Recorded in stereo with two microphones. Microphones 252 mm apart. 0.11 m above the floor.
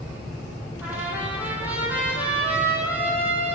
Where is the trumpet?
5° right (ahead or behind), 1.7 m.